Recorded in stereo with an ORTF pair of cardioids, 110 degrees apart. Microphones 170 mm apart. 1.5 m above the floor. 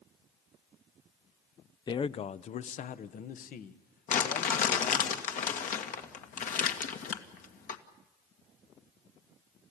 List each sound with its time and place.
1.9 s a man speaking: 25° left, 0.6 m; by 5.1 s 60° left, 2.5 m
4.1 s crumpling: 50° left, 2.0 m